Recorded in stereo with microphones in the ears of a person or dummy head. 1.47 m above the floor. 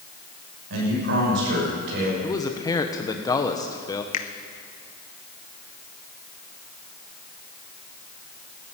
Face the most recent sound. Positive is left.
turn(degrees=45)  # may be behind; listen again after turning